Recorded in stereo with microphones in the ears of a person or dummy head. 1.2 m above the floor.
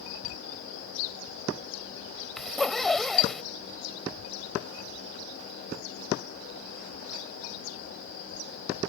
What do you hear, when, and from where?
2.4 s a zipper: 5° left (ahead or behind)